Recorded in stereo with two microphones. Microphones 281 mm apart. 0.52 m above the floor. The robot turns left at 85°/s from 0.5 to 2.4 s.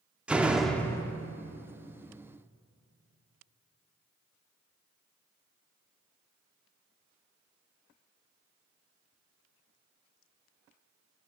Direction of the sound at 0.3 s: 5° right (ahead or behind).